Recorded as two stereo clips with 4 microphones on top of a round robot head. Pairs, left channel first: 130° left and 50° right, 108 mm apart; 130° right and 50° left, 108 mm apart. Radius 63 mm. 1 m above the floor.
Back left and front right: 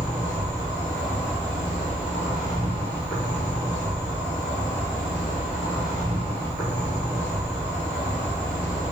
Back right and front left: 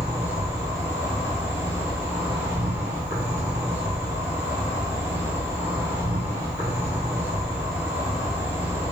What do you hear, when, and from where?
0.0 s an insect: 120° left, 1.7 m